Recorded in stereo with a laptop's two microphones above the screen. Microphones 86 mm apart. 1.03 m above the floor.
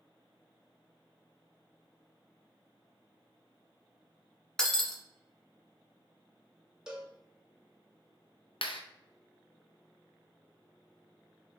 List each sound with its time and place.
4.6 s breaking glass: 5° left (ahead or behind), 1.2 m
6.9 s a cowbell: 10° right (ahead or behind), 1.0 m
8.6 s a clap: 80° left, 0.7 m